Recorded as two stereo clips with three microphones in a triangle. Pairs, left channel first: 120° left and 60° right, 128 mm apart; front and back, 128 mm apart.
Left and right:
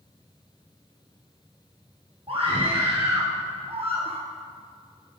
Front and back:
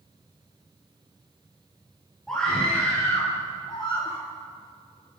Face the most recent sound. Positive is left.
turn(degrees=-35)